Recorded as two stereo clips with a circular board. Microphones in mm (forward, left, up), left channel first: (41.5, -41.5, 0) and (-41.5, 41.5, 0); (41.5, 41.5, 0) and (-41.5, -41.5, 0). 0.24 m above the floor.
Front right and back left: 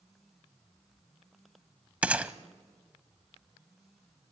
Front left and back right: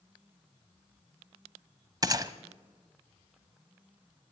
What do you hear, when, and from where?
2.0 s a gunshot: 155° right, 0.8 m